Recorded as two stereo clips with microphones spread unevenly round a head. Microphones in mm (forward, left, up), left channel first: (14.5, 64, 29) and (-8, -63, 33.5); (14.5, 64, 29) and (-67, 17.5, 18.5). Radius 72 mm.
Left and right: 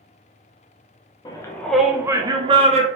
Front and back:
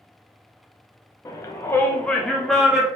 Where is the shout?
70° left, 0.9 m; by 2.9 s 75° right, 1.2 m.